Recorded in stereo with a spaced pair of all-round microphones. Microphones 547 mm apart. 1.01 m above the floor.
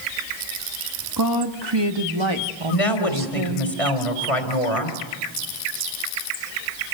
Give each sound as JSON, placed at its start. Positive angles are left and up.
{"t": 1.2, "sound": "a woman speaking", "side_deg": -40, "distance_m": 1.8}
{"t": 2.7, "sound": "a woman speaking", "side_deg": 80, "distance_m": 3.5}